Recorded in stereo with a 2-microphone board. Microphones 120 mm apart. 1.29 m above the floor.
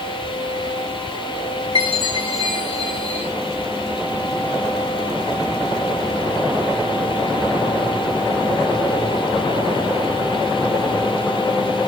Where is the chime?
40° right (ahead or behind), 7.5 m.